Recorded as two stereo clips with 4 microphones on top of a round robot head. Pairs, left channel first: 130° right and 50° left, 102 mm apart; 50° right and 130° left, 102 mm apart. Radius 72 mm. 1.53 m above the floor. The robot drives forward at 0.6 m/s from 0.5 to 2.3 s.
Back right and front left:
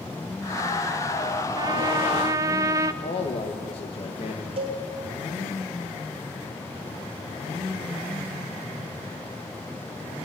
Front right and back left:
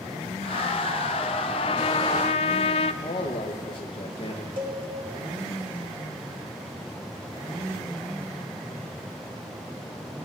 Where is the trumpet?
5° right, 1.0 m; by 2.9 s 10° right, 0.6 m.